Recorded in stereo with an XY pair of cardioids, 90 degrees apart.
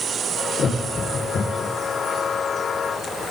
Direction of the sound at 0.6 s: 55° left.